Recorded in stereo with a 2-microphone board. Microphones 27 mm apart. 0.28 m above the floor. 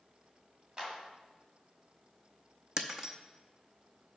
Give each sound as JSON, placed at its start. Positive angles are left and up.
{"t": 0.8, "sound": "a clap", "side_deg": -25, "distance_m": 1.5}
{"t": 2.8, "sound": "breaking glass", "side_deg": -20, "distance_m": 0.7}